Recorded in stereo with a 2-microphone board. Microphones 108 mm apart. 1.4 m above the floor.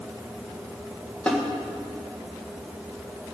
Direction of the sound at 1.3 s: 10° left (ahead or behind).